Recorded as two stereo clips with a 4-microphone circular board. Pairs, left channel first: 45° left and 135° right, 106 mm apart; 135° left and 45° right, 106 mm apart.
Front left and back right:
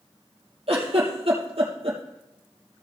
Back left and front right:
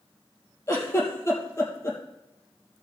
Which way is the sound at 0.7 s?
165° right.